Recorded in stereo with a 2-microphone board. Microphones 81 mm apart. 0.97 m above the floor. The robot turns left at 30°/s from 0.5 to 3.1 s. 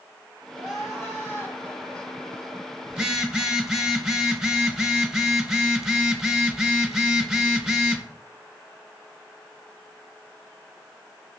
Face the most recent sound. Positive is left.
turn(degrees=-10)  # may be behind; listen again after turning